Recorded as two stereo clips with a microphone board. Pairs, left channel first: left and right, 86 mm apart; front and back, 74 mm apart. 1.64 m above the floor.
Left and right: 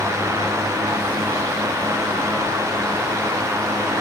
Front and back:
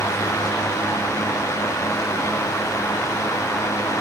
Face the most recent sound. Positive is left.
No sound to turn to.